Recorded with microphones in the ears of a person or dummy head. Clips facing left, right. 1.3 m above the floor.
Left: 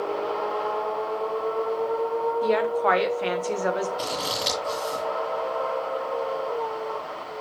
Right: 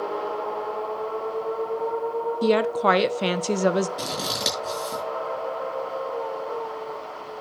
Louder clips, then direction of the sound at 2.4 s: Right 4 dB; 50° right (ahead or behind).